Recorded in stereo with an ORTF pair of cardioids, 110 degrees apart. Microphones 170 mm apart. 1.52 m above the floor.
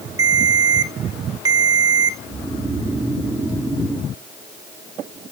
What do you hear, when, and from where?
0.2 s a ringtone: 25° right, 1.8 m
2.3 s snoring: 15° right, 2 m